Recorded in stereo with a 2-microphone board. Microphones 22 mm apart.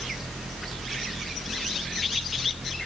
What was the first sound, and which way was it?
Only background noise.